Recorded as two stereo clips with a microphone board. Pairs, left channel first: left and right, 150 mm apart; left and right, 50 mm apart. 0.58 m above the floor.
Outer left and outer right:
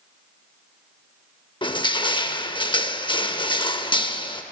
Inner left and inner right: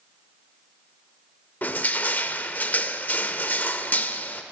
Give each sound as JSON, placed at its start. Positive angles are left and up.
{"t": 1.6, "sound": "crushing", "side_deg": 30, "distance_m": 0.6}